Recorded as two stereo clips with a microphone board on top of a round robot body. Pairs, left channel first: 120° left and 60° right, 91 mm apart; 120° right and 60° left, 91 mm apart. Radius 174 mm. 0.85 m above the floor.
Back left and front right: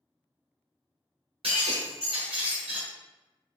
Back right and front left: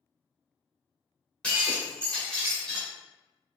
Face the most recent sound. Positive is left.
turn(degrees=-40)